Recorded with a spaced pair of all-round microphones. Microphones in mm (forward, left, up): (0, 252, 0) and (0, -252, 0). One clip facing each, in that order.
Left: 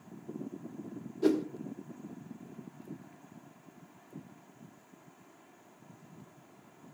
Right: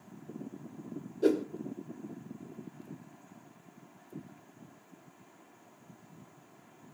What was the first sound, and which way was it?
A whoosh, 20° left (ahead or behind).